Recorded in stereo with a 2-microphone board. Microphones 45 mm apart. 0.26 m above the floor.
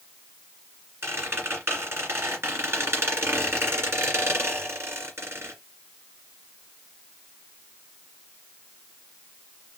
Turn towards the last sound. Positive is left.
turn(degrees=-65)  # may be behind; listen again after turning